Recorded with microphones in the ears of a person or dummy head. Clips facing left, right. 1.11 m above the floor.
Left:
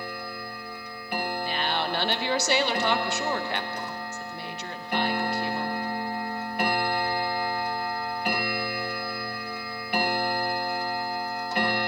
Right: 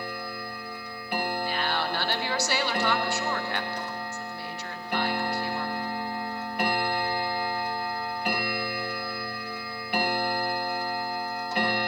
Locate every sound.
1.4 s a woman speaking: 20° left (ahead or behind), 1.1 m